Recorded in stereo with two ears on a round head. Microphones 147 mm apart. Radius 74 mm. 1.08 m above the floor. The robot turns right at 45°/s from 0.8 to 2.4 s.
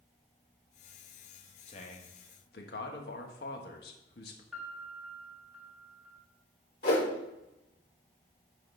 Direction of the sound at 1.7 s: 35° left.